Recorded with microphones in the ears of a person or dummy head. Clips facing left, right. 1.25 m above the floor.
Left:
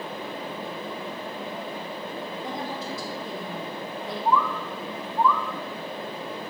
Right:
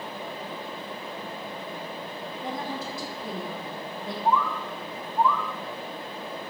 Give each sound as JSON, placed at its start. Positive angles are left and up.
{"t": 2.4, "sound": "a woman speaking", "side_deg": -75, "distance_m": 3.0}
{"t": 4.2, "sound": "a bird", "side_deg": 85, "distance_m": 0.7}